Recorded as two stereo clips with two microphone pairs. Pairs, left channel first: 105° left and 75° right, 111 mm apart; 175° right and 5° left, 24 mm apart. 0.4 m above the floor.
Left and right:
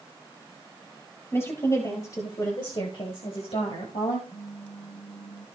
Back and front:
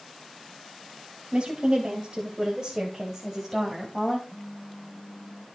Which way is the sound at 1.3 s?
45° left.